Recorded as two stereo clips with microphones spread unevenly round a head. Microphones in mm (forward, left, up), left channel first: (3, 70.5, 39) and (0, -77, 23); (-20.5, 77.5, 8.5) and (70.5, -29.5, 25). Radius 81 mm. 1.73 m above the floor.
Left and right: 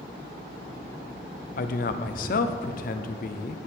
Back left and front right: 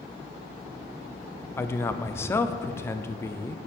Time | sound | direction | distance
1.6 | a man speaking | 55° left | 0.6 m